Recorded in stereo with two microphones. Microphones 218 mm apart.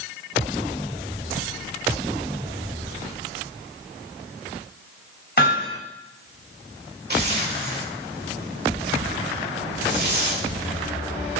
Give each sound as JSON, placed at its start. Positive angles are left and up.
{"t": 5.4, "sound": "hammering", "side_deg": 50, "distance_m": 2.5}
{"t": 7.1, "sound": "a zipper", "side_deg": -50, "distance_m": 1.5}